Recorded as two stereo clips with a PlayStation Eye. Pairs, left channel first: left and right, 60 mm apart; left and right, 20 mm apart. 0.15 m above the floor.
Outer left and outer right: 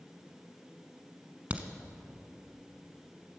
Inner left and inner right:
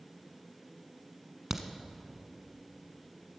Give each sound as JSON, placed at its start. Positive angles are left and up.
{"t": 1.5, "sound": "a crack", "side_deg": -20, "distance_m": 1.2}